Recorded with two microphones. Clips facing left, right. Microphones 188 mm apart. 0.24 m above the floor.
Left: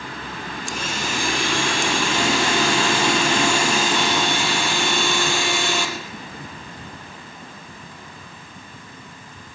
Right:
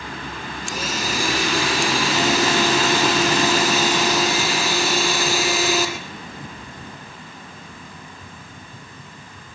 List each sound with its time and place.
0.7 s a blender: 5° right (ahead or behind), 7.5 m